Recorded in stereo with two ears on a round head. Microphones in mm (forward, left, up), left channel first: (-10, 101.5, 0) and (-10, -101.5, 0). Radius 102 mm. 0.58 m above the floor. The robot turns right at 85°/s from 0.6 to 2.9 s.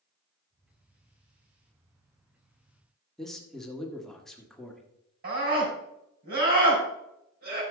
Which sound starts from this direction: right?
A scream, at 5.2 s.